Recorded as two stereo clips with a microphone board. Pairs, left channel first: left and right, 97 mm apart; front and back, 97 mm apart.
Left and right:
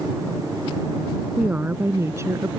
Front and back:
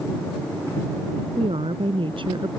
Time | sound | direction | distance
1.4 | a woman speaking | 165° right | ?